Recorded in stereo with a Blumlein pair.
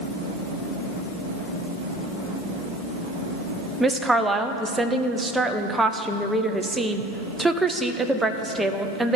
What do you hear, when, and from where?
3.8 s a woman speaking: 10° right, 0.7 m